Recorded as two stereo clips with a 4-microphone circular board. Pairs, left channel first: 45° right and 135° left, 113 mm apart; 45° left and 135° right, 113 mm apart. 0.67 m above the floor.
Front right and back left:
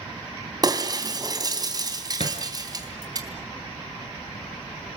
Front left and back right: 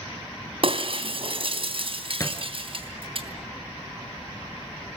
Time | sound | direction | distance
0.6 | breaking glass | 170° right | 3 m
2.2 | a thud | 15° right | 4 m